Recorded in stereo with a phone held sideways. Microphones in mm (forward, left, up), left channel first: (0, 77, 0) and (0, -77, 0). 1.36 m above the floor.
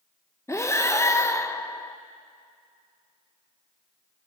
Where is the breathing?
20° left (ahead or behind), 0.8 m.